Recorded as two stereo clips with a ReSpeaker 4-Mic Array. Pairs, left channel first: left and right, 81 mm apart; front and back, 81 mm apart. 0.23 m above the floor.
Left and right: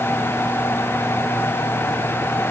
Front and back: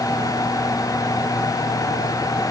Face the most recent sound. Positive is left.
No sound to turn to.